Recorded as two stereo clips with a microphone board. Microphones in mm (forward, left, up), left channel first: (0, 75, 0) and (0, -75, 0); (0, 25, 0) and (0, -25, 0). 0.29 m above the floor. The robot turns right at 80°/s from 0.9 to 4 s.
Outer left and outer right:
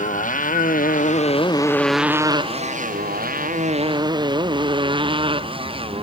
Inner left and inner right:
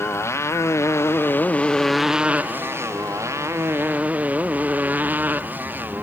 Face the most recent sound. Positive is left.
turn(degrees=-40)  # may be behind; listen again after turning